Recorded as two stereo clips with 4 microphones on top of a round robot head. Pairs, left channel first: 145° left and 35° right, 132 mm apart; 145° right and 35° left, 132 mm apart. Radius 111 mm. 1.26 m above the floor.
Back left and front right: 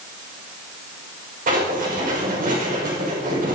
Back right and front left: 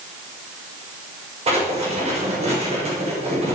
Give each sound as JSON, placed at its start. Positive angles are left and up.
{"t": 1.5, "sound": "writing", "azimuth_deg": -10, "distance_m": 5.0}